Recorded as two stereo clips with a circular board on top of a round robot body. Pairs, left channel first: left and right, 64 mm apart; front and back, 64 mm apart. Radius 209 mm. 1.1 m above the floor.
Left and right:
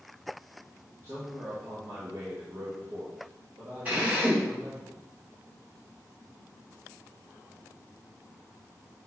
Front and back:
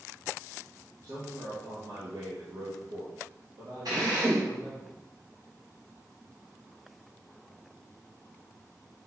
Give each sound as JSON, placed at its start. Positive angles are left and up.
{"t": 1.0, "sound": "a man speaking", "azimuth_deg": -145, "distance_m": 2.0}
{"t": 3.9, "sound": "a drill", "azimuth_deg": -160, "distance_m": 2.5}